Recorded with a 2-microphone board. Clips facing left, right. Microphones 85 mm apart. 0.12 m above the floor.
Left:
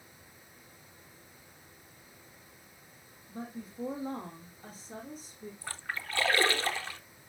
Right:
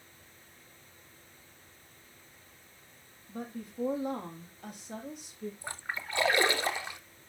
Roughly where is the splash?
Centre.